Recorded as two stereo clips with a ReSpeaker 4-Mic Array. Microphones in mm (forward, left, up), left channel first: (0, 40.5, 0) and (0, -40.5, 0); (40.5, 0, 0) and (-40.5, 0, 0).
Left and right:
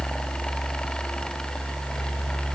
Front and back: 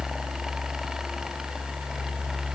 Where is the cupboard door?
No cupboard door in this recording.